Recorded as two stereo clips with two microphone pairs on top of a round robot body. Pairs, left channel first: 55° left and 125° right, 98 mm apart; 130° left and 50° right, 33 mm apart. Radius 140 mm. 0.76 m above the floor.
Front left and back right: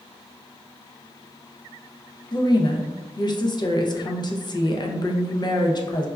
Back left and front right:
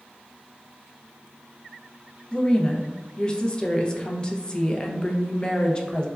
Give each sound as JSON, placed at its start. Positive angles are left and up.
{"t": 2.3, "sound": "a woman speaking", "azimuth_deg": 70, "distance_m": 0.6}